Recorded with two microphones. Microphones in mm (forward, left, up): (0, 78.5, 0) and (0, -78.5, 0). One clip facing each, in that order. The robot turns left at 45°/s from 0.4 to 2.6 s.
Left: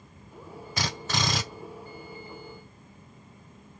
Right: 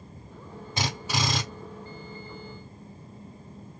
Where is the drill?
155° right, 1.8 m; by 1.4 s 175° left, 1.8 m.